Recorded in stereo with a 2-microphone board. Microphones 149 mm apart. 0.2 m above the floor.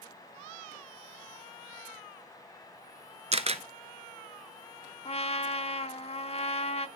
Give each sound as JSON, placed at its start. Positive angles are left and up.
{"t": 3.3, "sound": "a camera shutter", "side_deg": -45, "distance_m": 0.6}
{"t": 5.0, "sound": "a trumpet", "side_deg": 45, "distance_m": 0.7}